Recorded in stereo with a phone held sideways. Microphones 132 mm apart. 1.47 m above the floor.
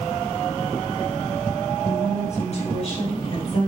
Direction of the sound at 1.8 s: 55° left (ahead or behind).